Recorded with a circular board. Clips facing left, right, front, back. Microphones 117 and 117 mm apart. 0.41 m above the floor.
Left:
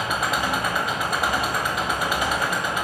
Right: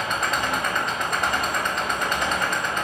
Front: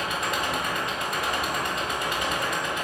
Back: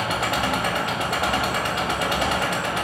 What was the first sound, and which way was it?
An engine running, 170° left.